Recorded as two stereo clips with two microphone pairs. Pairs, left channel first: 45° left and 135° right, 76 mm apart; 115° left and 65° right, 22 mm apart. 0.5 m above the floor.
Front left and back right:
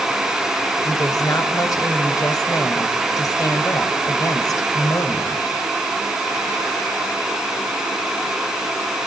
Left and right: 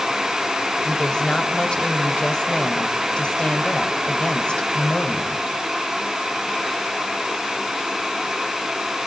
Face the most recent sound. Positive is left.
turn(degrees=80)